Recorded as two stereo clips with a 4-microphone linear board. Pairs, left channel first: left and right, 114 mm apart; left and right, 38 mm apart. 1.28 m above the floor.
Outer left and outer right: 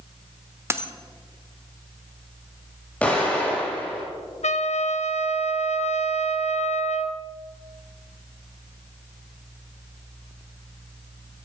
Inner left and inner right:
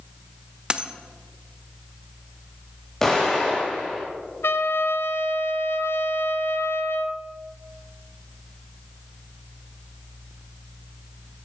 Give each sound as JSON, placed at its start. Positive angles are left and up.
{"t": 0.7, "sound": "a dropped coin", "side_deg": -25, "distance_m": 1.0}
{"t": 3.0, "sound": "an explosion", "side_deg": 15, "distance_m": 6.0}
{"t": 4.4, "sound": "a trumpet", "side_deg": 80, "distance_m": 0.8}